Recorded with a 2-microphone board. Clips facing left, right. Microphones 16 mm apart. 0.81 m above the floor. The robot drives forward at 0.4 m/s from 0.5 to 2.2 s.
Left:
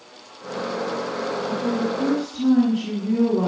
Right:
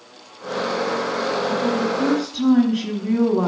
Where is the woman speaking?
45° right (ahead or behind), 1.5 m; by 3.5 s 55° right (ahead or behind), 1.4 m.